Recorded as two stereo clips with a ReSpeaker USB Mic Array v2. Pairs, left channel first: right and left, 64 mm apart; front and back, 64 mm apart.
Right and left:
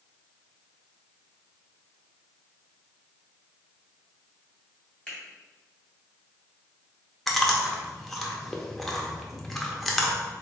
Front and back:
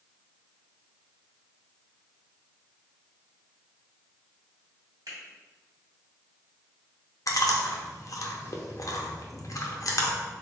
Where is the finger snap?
160° right, 1.8 m.